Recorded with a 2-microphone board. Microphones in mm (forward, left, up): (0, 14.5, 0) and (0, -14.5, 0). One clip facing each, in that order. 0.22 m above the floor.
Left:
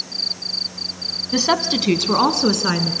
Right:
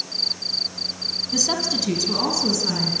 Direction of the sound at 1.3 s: 45° left (ahead or behind).